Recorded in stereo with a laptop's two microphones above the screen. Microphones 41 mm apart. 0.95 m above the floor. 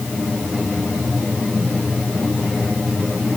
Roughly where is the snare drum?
I don't hear a snare drum.